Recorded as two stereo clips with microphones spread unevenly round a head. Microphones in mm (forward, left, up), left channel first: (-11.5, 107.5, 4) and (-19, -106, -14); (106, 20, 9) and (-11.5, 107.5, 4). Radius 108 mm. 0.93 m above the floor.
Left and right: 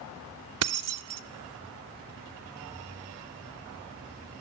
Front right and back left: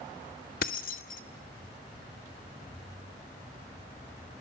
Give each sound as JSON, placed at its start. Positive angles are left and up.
{"t": 0.6, "sound": "keys jangling", "azimuth_deg": -85, "distance_m": 0.8}